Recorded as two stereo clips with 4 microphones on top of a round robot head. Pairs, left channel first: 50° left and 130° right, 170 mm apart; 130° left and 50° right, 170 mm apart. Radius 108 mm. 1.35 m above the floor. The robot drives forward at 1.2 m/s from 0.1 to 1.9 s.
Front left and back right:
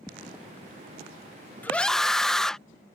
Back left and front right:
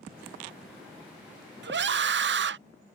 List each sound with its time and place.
1.6 s a scream: 30° right; by 2.6 s 35° right